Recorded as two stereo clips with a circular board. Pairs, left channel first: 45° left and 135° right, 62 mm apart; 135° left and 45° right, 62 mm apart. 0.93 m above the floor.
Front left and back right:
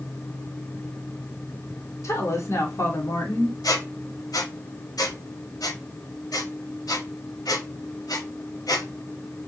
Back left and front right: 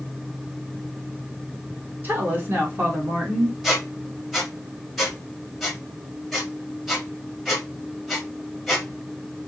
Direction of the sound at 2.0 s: 15° left.